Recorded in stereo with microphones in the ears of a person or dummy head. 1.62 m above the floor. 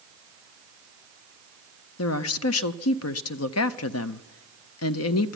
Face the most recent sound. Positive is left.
turn(degrees=80)